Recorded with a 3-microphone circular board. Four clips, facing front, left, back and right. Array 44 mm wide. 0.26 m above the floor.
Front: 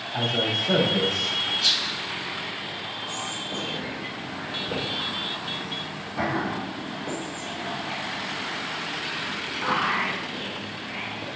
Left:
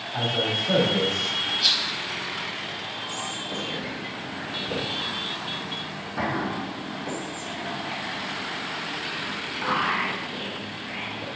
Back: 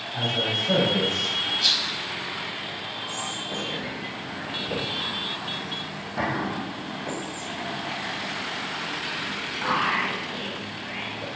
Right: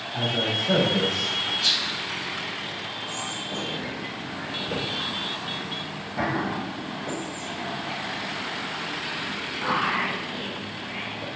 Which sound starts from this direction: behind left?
A rattle, at 1.6 s.